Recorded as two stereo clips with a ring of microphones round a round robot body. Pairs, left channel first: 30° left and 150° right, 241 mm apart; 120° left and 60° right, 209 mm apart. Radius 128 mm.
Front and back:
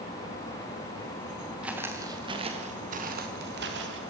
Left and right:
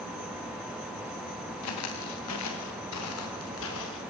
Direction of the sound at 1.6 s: 125° left.